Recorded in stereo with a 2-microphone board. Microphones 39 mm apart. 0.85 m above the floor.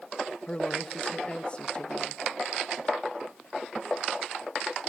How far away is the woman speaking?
About 1.1 m.